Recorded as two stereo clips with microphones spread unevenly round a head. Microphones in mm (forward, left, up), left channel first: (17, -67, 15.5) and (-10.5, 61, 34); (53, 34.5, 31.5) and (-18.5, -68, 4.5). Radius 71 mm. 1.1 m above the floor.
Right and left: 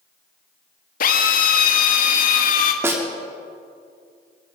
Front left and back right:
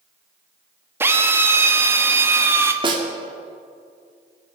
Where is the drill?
50° right, 1.2 m.